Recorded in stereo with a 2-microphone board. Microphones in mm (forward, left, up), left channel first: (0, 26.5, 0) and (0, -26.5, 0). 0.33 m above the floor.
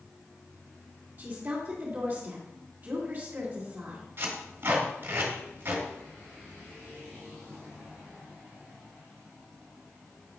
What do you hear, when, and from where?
1.2 s a woman speaking: 40° right (ahead or behind), 2.5 m
4.2 s tape being pulled: 50° right (ahead or behind), 2.5 m